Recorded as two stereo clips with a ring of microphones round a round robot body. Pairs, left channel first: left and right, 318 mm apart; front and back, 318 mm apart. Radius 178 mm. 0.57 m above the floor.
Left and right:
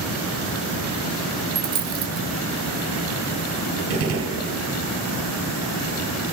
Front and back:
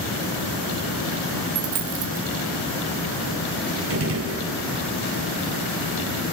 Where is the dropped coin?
150° right, 3 m.